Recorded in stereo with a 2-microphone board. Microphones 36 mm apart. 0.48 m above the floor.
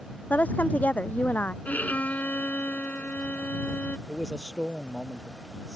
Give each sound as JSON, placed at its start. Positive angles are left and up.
{"t": 0.3, "sound": "a woman speaking", "side_deg": 55}
{"t": 1.6, "sound": "a violin", "side_deg": 55}
{"t": 4.1, "sound": "a man speaking", "side_deg": 10}